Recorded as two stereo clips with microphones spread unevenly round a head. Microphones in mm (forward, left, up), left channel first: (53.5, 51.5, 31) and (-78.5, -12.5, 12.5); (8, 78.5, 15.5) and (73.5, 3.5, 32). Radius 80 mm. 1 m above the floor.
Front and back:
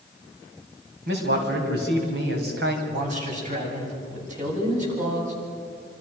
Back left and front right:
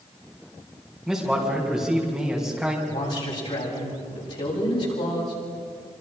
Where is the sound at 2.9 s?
170° left, 8.5 m.